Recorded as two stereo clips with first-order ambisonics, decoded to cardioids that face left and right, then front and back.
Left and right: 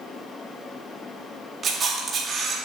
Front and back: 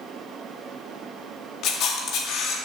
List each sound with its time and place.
1.6 s a camera shutter: 30° right, 1.8 m